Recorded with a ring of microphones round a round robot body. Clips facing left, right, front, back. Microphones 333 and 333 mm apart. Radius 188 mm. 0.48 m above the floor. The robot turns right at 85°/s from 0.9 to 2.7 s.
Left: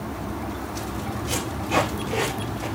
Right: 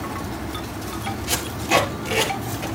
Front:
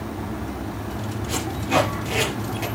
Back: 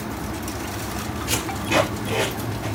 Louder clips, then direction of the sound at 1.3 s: Right 4 dB, even; 135° right.